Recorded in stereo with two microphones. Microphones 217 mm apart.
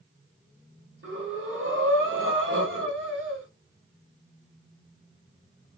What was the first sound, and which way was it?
Breathing, 70° right (ahead or behind).